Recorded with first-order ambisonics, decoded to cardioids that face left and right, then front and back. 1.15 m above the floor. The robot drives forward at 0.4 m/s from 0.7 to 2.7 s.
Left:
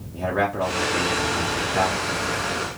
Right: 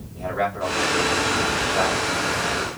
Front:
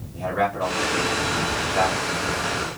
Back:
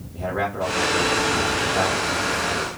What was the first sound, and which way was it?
A man speaking, 105° left.